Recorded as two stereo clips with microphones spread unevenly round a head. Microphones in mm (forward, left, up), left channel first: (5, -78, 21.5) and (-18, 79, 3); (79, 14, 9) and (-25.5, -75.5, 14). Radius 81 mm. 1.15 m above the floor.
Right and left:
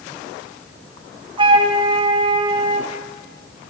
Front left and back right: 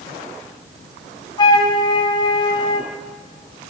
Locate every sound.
1.4 s a flute: 75° left, 0.8 m